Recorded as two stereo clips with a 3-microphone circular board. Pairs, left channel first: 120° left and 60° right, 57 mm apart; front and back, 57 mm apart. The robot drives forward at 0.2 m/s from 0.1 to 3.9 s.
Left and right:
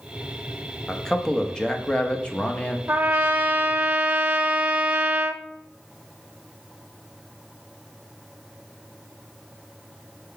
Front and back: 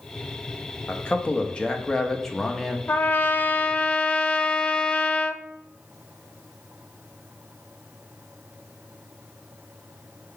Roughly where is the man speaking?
Ahead left.